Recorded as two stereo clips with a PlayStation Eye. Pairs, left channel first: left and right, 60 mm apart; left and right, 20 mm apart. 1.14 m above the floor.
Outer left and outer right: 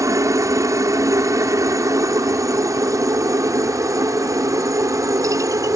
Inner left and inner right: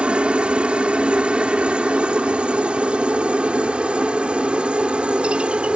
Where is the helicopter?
65° right (ahead or behind); by 5.8 s 70° right (ahead or behind).